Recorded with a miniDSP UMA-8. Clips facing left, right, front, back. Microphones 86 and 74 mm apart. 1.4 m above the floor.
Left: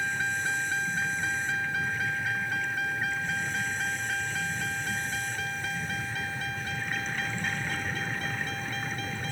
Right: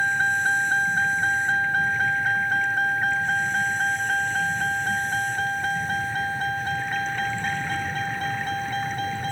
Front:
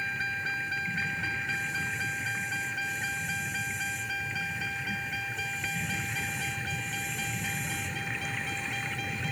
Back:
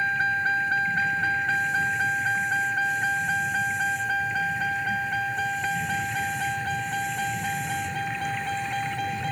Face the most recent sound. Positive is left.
turn(degrees=-135)